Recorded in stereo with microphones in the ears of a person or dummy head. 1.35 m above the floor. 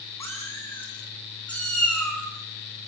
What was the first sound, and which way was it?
A cat meowing, 15° left (ahead or behind).